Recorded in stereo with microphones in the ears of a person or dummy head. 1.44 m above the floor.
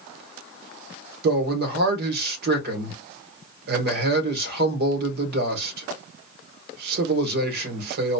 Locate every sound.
1.2 s a man speaking: 55° right (ahead or behind), 1.3 m